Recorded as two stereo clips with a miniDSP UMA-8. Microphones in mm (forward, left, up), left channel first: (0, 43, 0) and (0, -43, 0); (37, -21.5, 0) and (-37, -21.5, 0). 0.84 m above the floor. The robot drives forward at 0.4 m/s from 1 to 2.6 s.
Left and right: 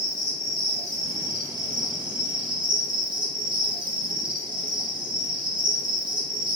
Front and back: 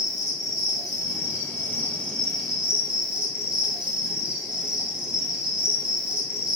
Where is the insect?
40° right, 0.7 m; by 6.6 s 100° right, 0.5 m.